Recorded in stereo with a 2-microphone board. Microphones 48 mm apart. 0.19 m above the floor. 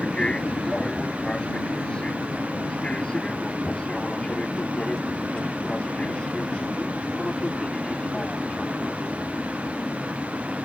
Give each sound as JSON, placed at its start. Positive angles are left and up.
{"t": 0.0, "sound": "an aircraft", "side_deg": 20}